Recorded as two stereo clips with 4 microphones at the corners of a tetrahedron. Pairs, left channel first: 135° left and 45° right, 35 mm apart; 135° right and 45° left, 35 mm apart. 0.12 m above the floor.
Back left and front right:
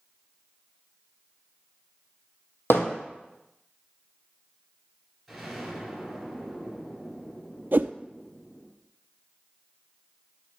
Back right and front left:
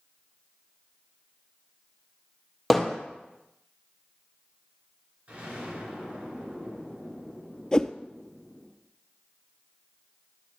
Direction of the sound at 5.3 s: 40° left.